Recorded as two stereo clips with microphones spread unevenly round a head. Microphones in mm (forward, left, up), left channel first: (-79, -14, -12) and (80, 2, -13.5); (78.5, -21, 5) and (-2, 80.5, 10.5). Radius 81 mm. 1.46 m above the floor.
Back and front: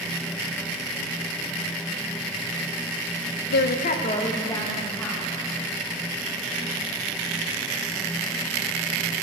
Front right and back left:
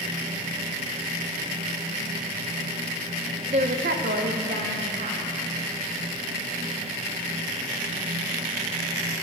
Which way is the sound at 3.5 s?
Straight behind.